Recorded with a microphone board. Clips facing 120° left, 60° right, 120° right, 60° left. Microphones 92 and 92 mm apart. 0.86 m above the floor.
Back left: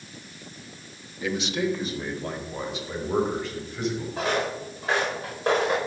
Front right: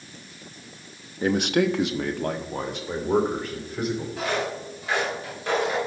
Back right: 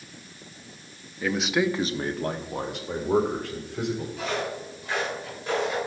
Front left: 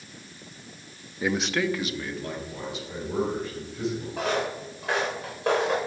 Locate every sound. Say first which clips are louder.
1.2 s a man speaking: front right 5 dB, back right 1 dB; 15° right, 0.8 m; by 4.1 s 100° right, 3.5 m
4.2 s footsteps: back left 1 dB, front left 2 dB; 65° left, 6 m; by 5.8 s 70° left, 5 m